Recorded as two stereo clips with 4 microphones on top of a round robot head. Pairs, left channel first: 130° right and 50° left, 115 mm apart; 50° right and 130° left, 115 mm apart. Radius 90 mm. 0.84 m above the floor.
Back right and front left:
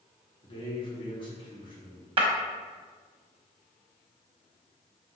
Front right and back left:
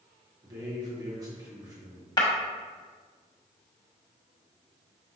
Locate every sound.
0.4 s a man speaking: 175° right, 1.6 m
2.2 s breaking glass: 5° left, 1.0 m